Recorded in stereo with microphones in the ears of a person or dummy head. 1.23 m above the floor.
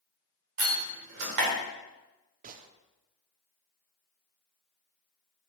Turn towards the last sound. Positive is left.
turn(degrees=-45)  # may be behind; listen again after turning